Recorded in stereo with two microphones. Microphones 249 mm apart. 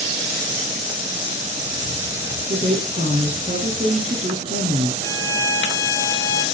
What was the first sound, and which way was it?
A woman speaking, 30° right (ahead or behind).